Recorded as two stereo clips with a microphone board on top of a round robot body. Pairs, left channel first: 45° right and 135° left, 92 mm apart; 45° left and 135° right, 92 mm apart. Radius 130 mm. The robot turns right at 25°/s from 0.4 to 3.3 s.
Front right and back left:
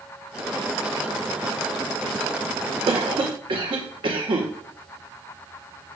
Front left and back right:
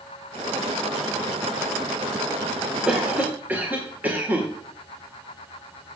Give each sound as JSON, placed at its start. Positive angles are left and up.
{"t": 2.9, "sound": "a cough", "azimuth_deg": 145, "distance_m": 2.0}